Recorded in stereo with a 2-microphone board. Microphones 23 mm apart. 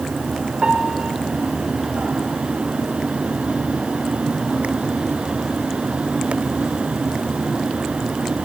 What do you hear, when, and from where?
0.6 s a piano: 40° right (ahead or behind), 4 m